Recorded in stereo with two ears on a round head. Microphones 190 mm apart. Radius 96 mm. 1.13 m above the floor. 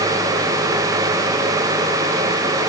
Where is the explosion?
No explosion in this recording.